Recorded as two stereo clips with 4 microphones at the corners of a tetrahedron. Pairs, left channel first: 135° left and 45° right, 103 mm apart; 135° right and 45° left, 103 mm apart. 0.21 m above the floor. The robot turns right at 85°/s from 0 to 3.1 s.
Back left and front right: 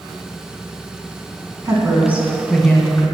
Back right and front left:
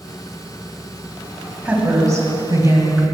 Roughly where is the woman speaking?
Ahead.